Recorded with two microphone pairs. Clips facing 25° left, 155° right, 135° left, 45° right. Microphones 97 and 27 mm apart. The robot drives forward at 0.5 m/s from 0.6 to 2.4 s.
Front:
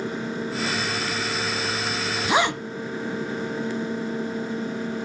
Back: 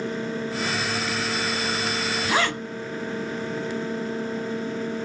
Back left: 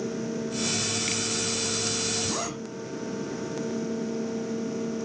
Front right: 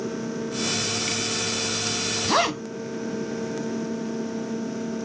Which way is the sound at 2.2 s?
35° right.